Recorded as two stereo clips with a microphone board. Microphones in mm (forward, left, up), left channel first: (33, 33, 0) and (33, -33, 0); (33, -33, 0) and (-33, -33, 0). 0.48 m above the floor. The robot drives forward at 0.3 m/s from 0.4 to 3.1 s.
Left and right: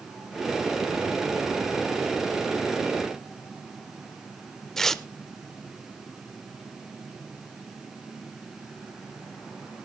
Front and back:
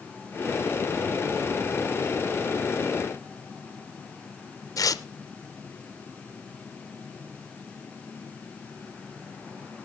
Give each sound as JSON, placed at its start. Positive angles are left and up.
{"t": 4.8, "sound": "tearing paper", "azimuth_deg": 5, "distance_m": 0.7}